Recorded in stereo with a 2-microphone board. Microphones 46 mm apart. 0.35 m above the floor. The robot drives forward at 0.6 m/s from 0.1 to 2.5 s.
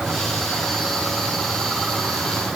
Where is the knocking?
No knocking in this recording.